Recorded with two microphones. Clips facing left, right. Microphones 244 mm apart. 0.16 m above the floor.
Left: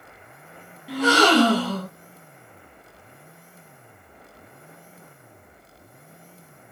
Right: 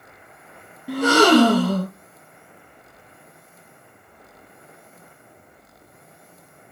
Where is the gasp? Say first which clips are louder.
Right 4 dB; 50° right (ahead or behind), 0.9 m.